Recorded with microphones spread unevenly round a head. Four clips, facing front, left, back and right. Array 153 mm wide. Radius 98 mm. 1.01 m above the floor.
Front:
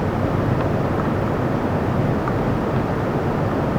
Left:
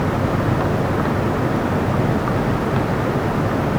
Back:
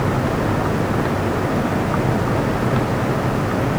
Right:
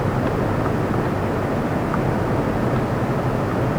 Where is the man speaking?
No man speaking in this recording.